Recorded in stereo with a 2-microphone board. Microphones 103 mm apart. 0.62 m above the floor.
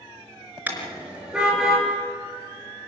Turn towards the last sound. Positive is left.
turn(degrees=0)  # may be behind; listen again after turning